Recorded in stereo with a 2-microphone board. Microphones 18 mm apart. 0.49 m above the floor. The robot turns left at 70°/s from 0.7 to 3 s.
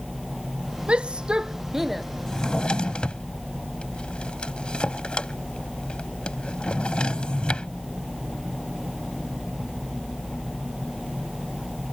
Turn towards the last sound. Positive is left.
turn(degrees=75)  # may be behind; listen again after turning